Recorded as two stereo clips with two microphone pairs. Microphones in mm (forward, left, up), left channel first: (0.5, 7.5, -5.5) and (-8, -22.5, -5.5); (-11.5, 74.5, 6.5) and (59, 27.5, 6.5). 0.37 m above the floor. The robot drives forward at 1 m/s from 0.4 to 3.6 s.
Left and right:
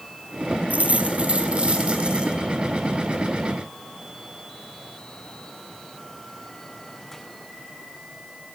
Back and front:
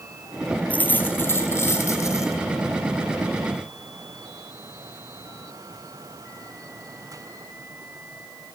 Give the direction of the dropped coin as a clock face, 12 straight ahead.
5 o'clock.